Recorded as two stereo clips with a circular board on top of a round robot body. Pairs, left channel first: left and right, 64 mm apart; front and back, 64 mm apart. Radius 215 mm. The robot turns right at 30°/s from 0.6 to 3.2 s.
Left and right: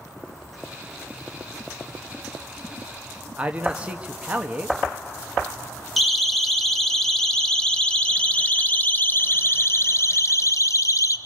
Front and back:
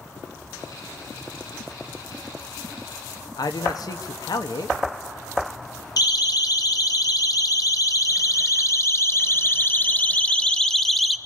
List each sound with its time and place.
3.4 s a man speaking: 20° right, 1.5 m
6.0 s a siren: straight ahead, 3 m; by 11.2 s 90° left, 1.6 m